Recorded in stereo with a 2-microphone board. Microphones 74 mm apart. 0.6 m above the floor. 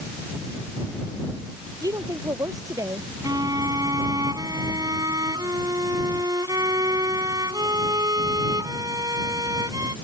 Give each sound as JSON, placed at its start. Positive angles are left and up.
{"t": 1.8, "sound": "a woman speaking", "side_deg": -55}
{"t": 3.2, "sound": "a violin", "side_deg": -60}